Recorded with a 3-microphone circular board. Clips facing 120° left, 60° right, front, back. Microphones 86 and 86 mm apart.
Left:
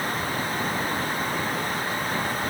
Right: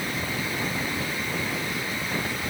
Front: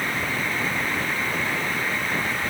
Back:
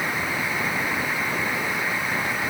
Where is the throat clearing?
I don't hear throat clearing.